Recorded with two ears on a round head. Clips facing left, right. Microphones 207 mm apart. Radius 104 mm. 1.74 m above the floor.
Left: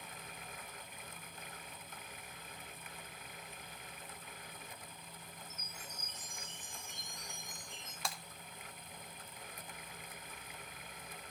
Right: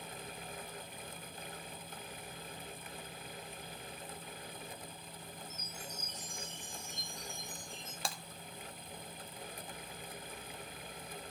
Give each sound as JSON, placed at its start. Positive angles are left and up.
{"t": 5.5, "sound": "a chime", "side_deg": -10, "distance_m": 6.5}
{"t": 8.1, "sound": "breaking glass", "side_deg": -30, "distance_m": 1.3}